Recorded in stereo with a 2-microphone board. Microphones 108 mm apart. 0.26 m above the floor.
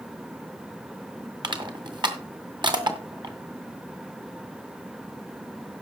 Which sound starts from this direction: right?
Crushing, at 1.4 s.